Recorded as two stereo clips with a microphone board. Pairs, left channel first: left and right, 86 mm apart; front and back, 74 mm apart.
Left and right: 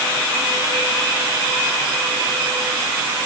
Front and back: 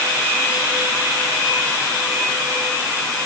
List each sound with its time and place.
Only background noise.